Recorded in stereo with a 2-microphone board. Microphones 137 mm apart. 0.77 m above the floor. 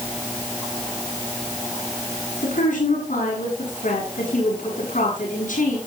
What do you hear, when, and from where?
2.4 s a woman speaking: 75° left (ahead or behind), 7 m